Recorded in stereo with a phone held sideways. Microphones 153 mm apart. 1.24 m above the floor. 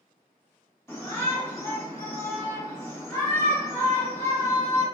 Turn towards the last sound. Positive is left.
turn(degrees=15)  # may be behind; listen again after turning